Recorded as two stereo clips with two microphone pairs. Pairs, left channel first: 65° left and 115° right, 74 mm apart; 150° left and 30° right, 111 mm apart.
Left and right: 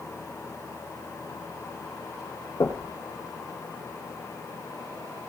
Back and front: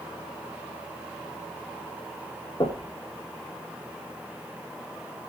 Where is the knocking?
105° left, 3 m.